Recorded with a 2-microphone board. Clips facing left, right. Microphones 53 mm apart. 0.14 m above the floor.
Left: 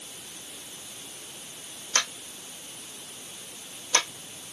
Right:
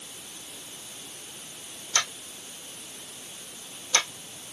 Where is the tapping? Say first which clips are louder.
Even; 40° left (ahead or behind), 3 m.